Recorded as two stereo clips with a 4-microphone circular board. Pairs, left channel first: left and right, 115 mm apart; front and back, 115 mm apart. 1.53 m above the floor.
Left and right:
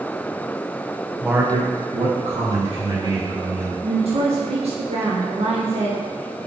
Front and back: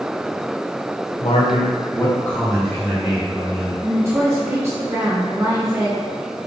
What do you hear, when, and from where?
1.2 s a man speaking: 5° right, 0.9 m; by 3.7 s 100° right, 2.5 m
3.8 s a woman speaking: 115° right, 0.8 m